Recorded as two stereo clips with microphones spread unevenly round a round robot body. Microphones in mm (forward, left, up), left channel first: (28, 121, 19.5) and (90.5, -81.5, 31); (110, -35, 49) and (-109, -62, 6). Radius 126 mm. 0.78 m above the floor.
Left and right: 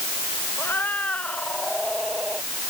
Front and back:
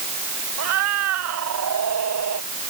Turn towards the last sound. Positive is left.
turn(degrees=-160)